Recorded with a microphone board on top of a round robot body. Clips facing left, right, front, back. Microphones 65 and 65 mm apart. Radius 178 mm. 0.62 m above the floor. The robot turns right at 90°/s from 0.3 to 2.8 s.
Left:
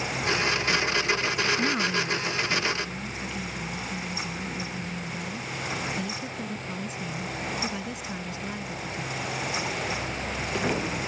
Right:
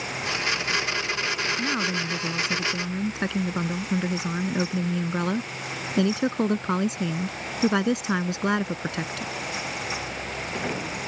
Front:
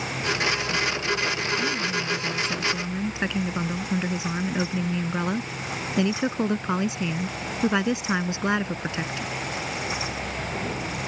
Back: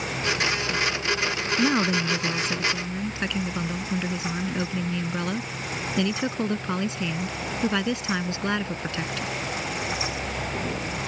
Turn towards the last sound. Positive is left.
turn(degrees=-70)